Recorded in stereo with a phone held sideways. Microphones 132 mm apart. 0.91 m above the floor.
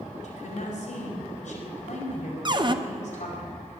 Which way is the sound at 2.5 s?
35° right (ahead or behind).